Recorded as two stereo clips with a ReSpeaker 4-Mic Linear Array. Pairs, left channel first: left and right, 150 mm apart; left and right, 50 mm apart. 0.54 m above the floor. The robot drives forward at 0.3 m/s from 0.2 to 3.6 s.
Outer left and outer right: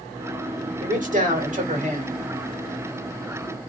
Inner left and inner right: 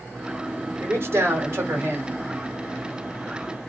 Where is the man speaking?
55° right (ahead or behind), 1.7 m; by 2.2 s 50° right (ahead or behind), 1.7 m.